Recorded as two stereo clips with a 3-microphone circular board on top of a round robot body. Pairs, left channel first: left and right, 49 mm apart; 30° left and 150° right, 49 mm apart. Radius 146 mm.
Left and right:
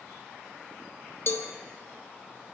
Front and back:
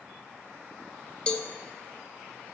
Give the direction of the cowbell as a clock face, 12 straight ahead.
9 o'clock.